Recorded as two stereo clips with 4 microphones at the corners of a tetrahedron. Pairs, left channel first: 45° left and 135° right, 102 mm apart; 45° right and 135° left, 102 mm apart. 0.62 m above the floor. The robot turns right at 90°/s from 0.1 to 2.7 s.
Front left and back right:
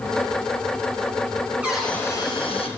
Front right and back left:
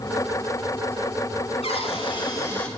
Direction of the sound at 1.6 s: 60° right.